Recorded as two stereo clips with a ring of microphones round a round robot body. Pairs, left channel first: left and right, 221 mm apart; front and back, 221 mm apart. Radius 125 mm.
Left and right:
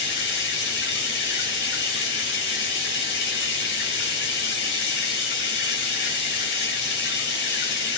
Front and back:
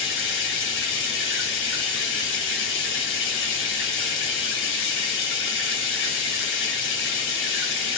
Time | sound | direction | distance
0.0 | running water | 45° left | 1.9 m